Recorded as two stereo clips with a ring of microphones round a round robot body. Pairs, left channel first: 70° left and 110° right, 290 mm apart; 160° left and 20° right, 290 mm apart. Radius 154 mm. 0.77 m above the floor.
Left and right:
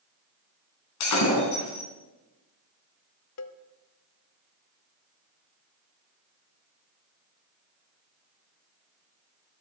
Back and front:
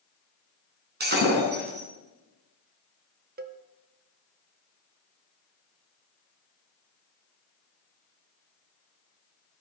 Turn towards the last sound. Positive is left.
turn(degrees=35)